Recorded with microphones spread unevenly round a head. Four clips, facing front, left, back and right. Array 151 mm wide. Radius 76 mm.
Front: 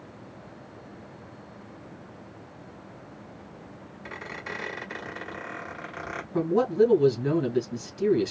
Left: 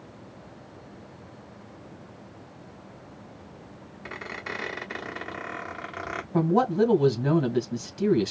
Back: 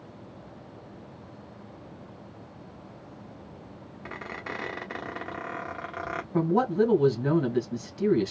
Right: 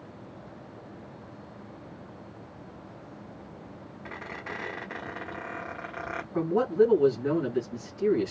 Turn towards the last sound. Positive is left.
turn(degrees=115)